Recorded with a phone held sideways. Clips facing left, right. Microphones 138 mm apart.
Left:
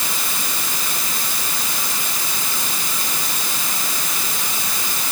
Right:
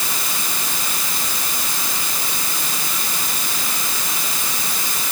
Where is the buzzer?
No buzzer in this recording.